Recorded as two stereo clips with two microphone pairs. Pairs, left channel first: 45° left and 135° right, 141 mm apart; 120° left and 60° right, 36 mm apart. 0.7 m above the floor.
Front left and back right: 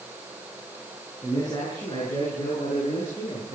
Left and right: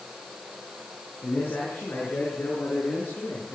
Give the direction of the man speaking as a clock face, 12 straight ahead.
8 o'clock.